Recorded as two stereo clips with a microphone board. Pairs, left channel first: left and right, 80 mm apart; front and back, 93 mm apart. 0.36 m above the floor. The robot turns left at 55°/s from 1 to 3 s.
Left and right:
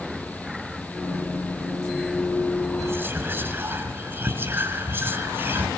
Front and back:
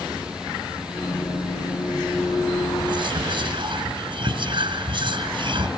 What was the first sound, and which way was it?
Whispering, 140° right.